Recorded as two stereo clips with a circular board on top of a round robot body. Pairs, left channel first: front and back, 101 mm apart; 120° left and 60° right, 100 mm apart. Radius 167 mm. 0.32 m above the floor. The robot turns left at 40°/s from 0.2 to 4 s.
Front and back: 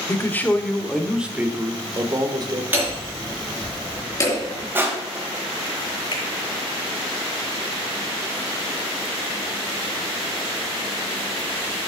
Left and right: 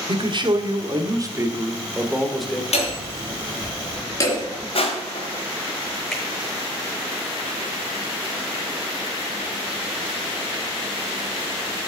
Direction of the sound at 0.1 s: 60° right.